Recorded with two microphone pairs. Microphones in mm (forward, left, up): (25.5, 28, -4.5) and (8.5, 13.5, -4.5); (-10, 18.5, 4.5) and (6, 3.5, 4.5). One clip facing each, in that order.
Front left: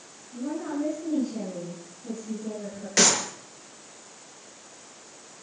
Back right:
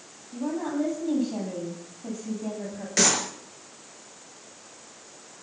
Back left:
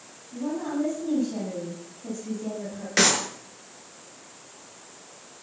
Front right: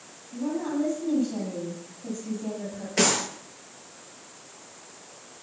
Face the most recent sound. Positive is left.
turn(degrees=120)